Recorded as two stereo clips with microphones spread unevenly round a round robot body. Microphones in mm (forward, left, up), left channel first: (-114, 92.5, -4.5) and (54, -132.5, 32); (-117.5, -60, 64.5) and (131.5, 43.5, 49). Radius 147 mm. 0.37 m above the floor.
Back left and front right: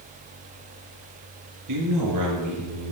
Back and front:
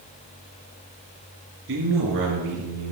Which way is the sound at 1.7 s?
25° right.